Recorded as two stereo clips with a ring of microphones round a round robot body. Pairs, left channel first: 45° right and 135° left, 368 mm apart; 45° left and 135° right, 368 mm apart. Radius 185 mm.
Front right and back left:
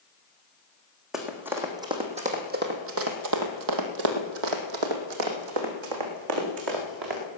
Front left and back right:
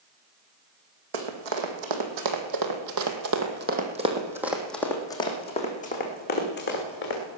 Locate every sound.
1.1 s running footsteps: 135° right, 3 m; by 7.2 s 105° left, 4 m